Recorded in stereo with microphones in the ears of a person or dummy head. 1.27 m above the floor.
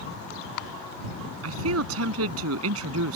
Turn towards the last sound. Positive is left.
turn(degrees=-85)